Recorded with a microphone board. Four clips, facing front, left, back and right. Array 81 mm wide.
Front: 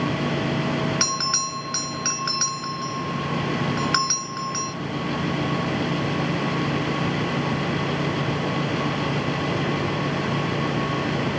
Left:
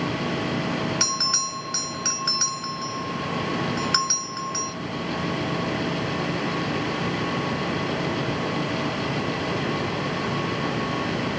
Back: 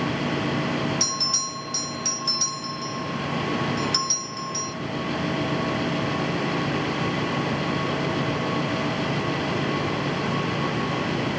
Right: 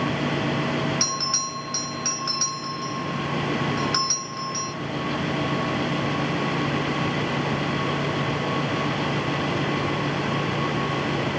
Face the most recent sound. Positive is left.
turn(degrees=10)